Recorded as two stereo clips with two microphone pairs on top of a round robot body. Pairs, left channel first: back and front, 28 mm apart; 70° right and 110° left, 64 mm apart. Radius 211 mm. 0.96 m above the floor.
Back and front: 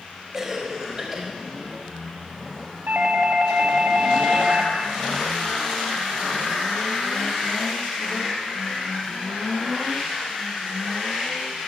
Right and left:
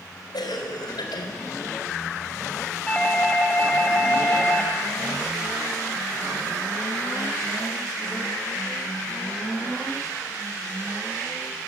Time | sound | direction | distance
0.3 | a cough | 75° right | 4.5 m
2.9 | a doorbell | 5° left | 3 m